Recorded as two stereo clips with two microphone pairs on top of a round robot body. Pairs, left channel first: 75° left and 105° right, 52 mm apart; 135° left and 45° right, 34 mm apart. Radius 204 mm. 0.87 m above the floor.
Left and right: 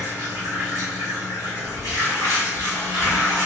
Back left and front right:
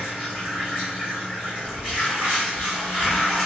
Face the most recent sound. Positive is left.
turn(degrees=-95)